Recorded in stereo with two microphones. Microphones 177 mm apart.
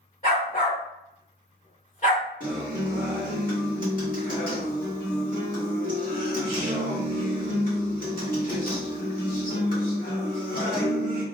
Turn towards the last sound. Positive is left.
turn(degrees=55)  # may be behind; listen again after turning